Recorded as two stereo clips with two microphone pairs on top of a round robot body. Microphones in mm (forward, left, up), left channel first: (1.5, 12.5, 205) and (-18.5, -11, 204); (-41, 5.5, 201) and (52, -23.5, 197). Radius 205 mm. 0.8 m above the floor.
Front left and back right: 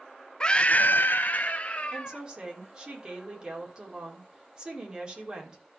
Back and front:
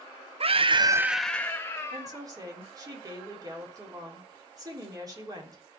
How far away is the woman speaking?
About 3.5 m.